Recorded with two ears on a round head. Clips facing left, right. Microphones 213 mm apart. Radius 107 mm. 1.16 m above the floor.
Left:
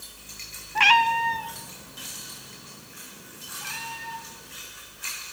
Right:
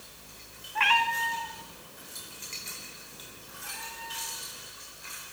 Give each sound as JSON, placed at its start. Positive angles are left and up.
{"t": 0.8, "sound": "a cat meowing", "side_deg": 55, "distance_m": 1.2}